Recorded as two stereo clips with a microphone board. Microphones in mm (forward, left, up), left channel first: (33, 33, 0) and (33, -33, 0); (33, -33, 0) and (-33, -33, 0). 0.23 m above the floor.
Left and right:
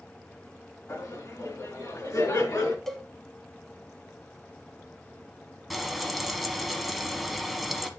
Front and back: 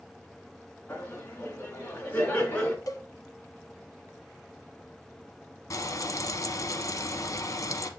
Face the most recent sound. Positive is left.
turn(degrees=0)